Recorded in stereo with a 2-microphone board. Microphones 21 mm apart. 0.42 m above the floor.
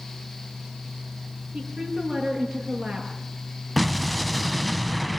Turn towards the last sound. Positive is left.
turn(degrees=5)  # may be behind; listen again after turning